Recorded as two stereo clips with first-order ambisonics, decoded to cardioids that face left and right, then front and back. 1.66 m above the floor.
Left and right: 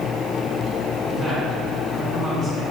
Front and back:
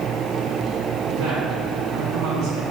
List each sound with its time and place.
1.1 s a woman speaking: 150° right, 3 m